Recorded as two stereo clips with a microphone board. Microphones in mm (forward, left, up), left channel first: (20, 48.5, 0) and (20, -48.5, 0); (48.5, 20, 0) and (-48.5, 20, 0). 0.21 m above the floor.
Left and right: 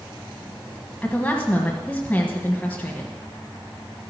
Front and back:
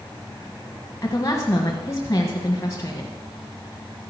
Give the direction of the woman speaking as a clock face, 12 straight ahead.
11 o'clock.